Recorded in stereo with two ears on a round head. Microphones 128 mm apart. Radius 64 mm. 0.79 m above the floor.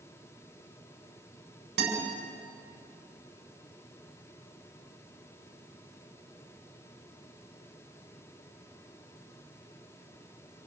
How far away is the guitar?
About 7 m.